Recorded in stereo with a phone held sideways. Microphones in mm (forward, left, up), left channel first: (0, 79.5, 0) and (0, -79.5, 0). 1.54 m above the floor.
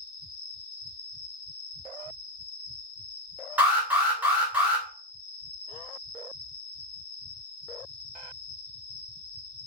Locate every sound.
0.0 s an insect: 20° right (ahead or behind), 1.9 m
3.6 s an alarm: 10° right (ahead or behind), 1.1 m